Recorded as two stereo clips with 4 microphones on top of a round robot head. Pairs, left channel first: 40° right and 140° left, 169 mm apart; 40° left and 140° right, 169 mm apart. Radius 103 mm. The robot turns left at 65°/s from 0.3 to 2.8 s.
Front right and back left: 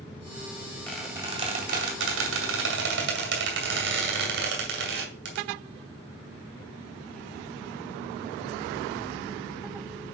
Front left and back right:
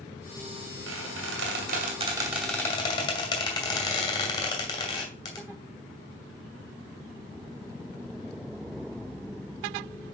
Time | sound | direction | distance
0.9 | a squeak | 125° right | 2.5 m